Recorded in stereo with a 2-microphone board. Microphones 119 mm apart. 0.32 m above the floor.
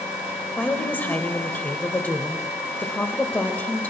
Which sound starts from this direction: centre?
A woman speaking, at 0.6 s.